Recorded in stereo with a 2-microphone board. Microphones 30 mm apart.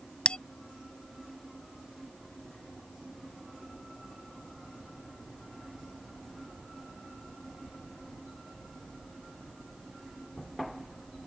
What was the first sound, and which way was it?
A bell, 40° left (ahead or behind).